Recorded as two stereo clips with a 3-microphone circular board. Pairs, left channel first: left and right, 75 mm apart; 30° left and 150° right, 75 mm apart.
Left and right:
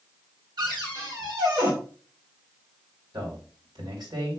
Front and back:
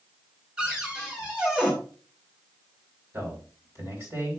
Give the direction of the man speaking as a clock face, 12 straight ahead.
3 o'clock.